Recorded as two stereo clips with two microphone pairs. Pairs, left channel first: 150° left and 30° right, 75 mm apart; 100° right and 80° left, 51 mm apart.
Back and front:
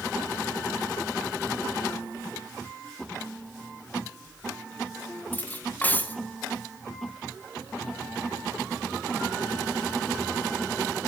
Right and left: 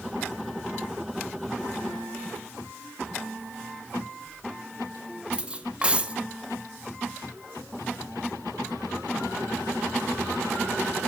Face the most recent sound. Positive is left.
turn(degrees=115)